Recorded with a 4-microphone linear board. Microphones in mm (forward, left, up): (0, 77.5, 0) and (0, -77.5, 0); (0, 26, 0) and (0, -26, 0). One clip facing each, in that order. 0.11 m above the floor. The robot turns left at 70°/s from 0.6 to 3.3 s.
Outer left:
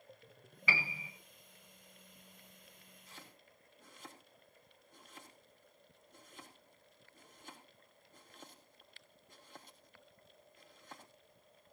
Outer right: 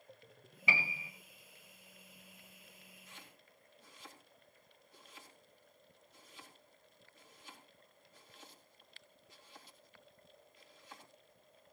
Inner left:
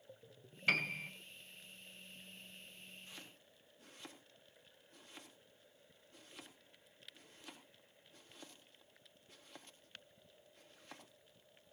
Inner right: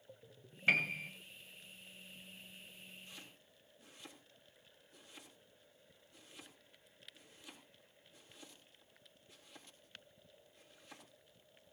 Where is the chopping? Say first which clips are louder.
Outer left 5 dB, even; 30° left (ahead or behind), 4 m; by 11.1 s 50° left (ahead or behind), 4 m.